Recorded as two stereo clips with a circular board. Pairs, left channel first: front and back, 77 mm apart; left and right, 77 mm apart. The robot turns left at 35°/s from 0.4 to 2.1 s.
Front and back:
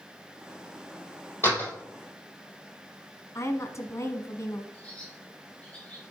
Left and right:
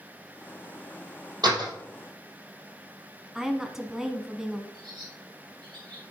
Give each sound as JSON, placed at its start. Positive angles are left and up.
{"t": 1.4, "sound": "a door slam", "azimuth_deg": -60, "distance_m": 3.5}
{"t": 3.4, "sound": "a woman speaking", "azimuth_deg": -5, "distance_m": 1.3}
{"t": 4.7, "sound": "a bird", "azimuth_deg": -75, "distance_m": 4.5}